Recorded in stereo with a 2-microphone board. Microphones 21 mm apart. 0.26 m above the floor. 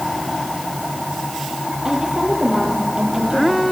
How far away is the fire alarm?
No fire alarm in this recording.